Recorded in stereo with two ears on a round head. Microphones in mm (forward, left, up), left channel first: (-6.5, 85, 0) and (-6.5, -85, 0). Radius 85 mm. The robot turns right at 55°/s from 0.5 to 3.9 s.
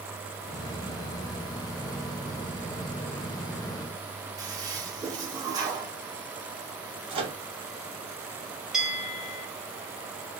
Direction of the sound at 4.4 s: 20° right (ahead or behind).